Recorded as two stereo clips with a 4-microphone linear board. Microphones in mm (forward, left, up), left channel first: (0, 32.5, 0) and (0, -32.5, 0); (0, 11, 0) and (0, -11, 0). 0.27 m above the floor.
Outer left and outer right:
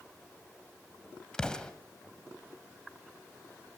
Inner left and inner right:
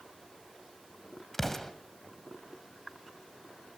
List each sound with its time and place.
1.3 s an explosion: 10° left (ahead or behind), 1.9 m